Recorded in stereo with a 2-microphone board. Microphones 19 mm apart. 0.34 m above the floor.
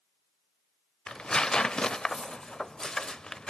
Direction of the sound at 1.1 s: 50° left (ahead or behind).